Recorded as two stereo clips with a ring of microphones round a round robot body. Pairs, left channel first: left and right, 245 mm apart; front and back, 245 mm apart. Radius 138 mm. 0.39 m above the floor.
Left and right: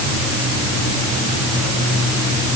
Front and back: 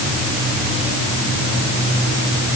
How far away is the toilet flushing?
No toilet flushing in this recording.